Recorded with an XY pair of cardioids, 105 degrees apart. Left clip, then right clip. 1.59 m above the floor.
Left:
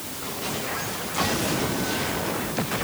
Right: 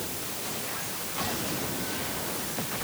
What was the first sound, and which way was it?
Only background noise.